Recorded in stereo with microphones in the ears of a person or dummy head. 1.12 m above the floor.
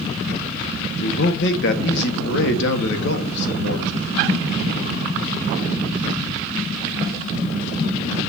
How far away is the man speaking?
About 1.5 m.